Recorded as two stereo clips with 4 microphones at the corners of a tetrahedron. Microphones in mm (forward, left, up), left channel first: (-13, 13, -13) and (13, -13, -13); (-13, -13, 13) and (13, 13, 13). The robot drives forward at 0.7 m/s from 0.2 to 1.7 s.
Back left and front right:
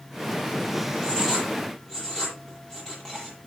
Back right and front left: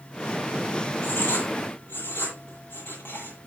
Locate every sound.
1.0 s writing: 150° right, 9 m